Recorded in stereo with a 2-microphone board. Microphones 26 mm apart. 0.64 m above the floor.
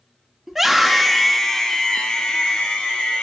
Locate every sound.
0.5 s a scream: 15° right (ahead or behind), 1.2 m; by 3.2 s 50° left (ahead or behind), 1.7 m